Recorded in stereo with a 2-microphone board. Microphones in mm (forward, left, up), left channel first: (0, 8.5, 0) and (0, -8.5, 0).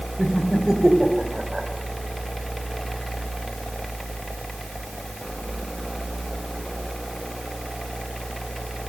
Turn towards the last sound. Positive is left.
turn(degrees=-40)  # may be behind; listen again after turning